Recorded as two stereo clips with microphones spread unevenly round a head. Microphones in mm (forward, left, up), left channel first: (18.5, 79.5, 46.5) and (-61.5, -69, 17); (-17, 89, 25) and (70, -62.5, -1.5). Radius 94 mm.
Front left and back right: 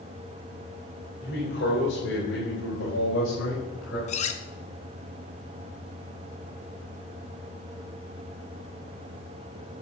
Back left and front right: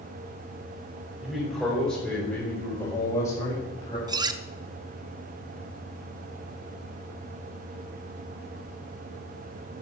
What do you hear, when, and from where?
1.2 s a man speaking: 30° left, 4.5 m; by 4.0 s 55° left, 5.5 m
4.1 s cutlery clinking: 10° left, 0.9 m